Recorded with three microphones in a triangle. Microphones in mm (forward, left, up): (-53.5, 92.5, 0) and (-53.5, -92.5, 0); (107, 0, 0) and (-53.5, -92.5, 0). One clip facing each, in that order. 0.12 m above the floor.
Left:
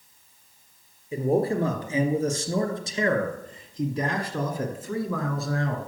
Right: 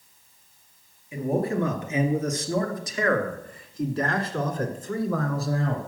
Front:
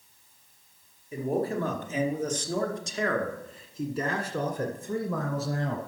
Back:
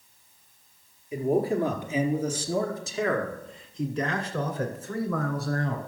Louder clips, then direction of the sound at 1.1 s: Left 2 dB, back 4 dB; 140° left.